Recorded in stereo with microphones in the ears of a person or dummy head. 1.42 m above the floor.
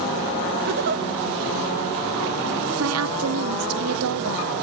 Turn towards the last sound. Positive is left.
turn(degrees=-80)